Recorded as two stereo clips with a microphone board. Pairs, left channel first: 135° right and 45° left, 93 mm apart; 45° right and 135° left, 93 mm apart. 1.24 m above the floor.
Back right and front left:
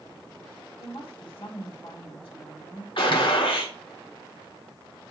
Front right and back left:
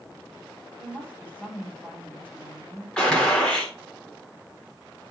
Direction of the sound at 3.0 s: 125° right.